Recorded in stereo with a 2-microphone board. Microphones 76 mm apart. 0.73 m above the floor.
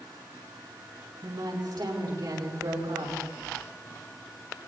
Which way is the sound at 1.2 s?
75° right (ahead or behind).